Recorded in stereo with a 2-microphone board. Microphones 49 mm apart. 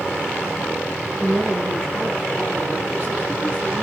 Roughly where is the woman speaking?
Centre.